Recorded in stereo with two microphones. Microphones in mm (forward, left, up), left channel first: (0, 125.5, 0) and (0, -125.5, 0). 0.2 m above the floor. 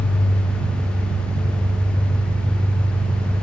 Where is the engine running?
65° right (ahead or behind), 1.9 m.